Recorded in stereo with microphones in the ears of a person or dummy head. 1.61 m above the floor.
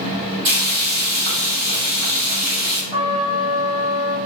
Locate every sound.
0.5 s frying: 40° right (ahead or behind), 1.1 m
2.9 s a trumpet: 30° right (ahead or behind), 1.0 m